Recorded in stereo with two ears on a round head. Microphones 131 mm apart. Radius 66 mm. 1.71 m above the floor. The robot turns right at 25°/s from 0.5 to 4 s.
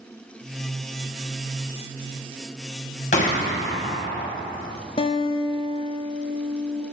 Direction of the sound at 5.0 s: 35° left (ahead or behind).